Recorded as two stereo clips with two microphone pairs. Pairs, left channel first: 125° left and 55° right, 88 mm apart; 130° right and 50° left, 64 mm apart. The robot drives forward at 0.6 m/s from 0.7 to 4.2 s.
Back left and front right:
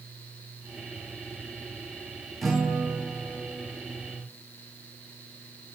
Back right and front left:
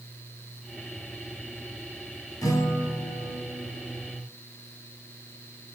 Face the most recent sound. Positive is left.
turn(degrees=-155)